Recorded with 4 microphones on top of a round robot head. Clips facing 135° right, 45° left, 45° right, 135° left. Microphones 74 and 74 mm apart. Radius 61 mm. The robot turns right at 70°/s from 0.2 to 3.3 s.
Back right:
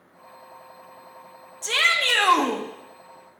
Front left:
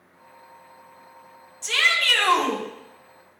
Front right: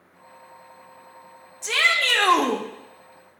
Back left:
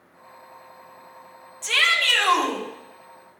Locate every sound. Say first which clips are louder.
1.6 s a shout: even, even; 115° right, 0.9 m; by 2.6 s 45° right, 0.9 m